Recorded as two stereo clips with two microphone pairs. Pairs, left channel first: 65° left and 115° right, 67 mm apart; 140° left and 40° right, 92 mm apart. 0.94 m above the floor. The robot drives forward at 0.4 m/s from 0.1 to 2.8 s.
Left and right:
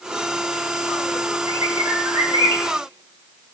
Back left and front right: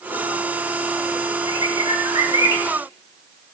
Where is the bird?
85° right, 2.5 m; by 2.6 s 95° right, 2.5 m.